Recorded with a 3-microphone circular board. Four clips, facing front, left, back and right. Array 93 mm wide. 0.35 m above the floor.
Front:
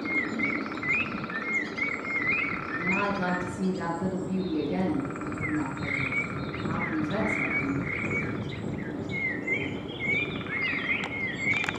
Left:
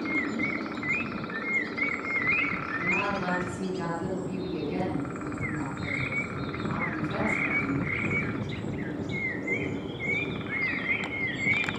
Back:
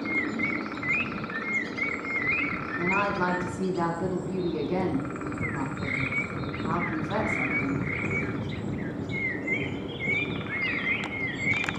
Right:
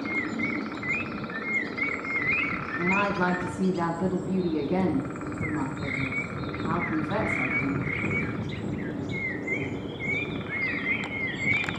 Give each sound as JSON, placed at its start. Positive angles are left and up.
{"t": 2.8, "sound": "a woman speaking", "azimuth_deg": -135, "distance_m": 4.0}